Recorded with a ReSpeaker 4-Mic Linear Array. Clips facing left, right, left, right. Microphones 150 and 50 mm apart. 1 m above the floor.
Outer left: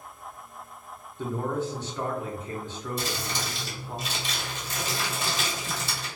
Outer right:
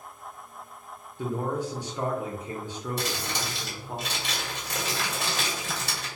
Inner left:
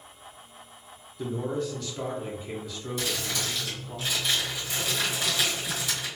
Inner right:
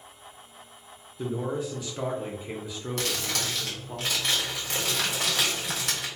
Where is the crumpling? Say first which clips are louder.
Outer left 1 dB, inner right 1 dB; 70° right (ahead or behind), 1.3 m.